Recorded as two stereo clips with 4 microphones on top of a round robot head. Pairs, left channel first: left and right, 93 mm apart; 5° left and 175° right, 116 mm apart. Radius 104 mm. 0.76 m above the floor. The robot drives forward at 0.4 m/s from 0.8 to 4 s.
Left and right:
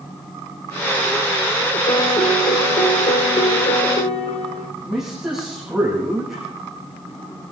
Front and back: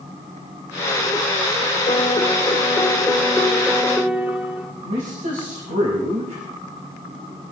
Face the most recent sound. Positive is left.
turn(degrees=-175)